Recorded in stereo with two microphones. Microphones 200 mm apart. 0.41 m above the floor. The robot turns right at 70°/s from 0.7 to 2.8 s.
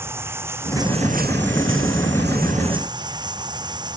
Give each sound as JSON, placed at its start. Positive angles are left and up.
{"t": 0.0, "sound": "running water", "azimuth_deg": -170}